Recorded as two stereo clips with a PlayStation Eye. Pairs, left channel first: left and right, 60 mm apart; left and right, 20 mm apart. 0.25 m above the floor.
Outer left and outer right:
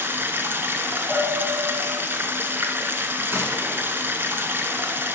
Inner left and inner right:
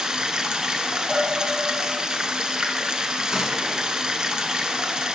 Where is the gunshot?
40° right (ahead or behind), 1.7 m.